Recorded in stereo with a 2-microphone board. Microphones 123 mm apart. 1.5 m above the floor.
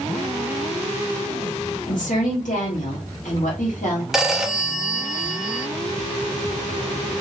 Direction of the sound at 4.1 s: 5° right (ahead or behind).